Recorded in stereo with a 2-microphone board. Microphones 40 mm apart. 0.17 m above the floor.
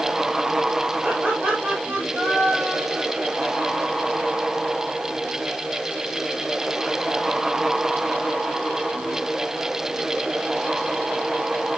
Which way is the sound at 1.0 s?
45° right (ahead or behind).